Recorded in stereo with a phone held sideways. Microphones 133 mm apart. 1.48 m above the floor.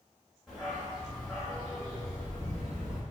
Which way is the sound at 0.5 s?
Centre (ahead or behind).